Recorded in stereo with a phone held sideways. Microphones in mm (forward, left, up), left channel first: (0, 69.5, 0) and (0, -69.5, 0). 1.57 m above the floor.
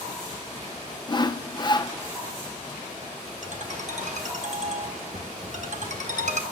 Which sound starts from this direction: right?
A ringtone, at 3.4 s.